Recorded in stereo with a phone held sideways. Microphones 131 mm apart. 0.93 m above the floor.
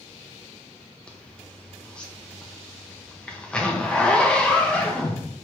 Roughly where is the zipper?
Centre.